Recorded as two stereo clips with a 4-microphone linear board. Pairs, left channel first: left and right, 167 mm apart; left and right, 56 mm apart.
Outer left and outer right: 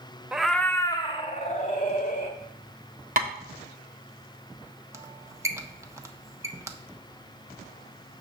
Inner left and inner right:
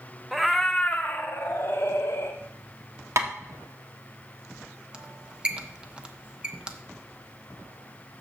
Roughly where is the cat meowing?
Centre.